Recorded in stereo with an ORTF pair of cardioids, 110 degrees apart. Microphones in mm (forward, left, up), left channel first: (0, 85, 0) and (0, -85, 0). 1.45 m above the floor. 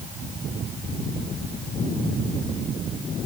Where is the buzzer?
I don't hear a buzzer.